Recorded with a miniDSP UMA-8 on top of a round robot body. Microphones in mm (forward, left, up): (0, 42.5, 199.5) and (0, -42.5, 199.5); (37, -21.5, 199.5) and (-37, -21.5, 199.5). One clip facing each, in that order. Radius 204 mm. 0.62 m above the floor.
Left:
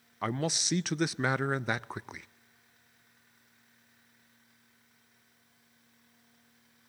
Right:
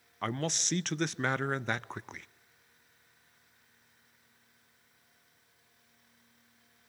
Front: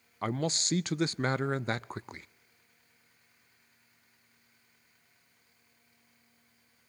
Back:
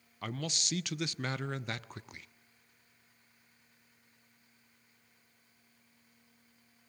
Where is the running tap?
No running tap in this recording.